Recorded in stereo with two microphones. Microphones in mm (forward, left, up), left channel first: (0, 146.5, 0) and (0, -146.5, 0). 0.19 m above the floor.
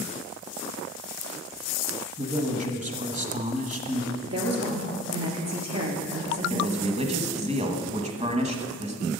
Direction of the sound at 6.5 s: 25° right (ahead or behind).